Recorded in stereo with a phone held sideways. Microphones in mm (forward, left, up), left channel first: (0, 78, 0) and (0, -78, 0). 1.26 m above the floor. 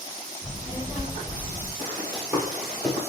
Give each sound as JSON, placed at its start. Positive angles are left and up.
{"t": 0.4, "sound": "a child speaking", "side_deg": -20, "distance_m": 1.1}
{"t": 1.8, "sound": "running footsteps", "side_deg": -35, "distance_m": 1.8}